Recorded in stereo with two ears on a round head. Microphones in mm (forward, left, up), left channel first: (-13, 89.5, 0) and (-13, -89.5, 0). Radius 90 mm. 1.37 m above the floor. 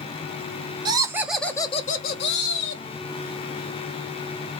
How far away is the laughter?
About 0.7 m.